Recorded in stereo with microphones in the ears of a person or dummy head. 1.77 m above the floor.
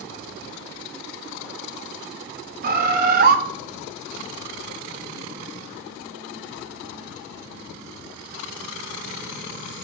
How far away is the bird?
About 0.7 m.